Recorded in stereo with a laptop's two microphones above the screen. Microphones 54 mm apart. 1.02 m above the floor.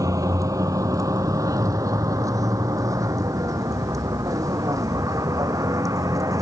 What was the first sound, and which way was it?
A vehicle, 80° right.